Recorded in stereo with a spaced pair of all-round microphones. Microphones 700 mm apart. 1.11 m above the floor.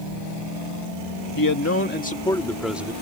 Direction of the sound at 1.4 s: 30° left (ahead or behind).